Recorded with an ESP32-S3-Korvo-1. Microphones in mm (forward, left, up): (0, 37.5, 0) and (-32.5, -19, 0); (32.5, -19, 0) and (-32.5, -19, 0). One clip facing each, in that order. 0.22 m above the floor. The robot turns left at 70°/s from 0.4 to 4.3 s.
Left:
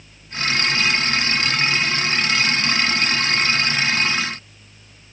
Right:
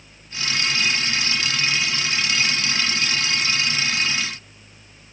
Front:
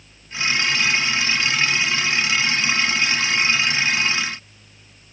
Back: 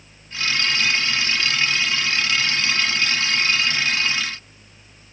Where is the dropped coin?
No dropped coin in this recording.